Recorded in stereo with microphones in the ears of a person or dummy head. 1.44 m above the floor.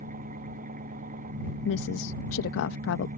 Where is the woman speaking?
75° left (ahead or behind).